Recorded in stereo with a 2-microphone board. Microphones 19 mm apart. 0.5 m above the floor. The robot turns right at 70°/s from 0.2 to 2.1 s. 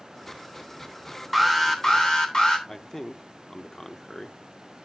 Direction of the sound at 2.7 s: 25° left (ahead or behind).